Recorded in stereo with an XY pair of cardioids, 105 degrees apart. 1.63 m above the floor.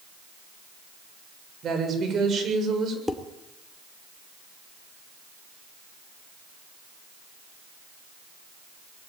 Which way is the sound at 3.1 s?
10° left.